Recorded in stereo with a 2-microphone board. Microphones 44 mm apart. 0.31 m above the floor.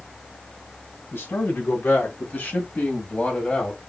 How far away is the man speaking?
About 3 m.